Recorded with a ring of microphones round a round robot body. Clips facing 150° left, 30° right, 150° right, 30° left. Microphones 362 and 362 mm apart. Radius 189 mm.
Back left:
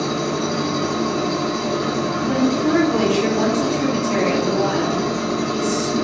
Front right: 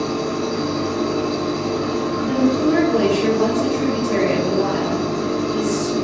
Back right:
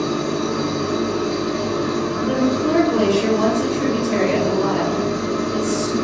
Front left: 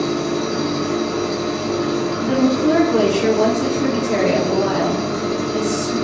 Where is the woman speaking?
100° left, 0.9 m.